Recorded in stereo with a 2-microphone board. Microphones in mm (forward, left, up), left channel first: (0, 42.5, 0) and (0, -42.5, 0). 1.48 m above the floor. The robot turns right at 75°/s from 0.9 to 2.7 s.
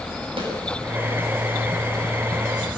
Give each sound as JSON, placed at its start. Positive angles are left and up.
{"t": 0.4, "sound": "a snare drum", "side_deg": -85, "distance_m": 6.5}